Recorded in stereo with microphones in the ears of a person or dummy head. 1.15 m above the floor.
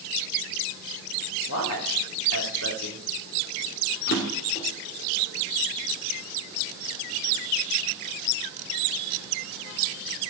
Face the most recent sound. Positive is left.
turn(degrees=60)  # may be behind; listen again after turning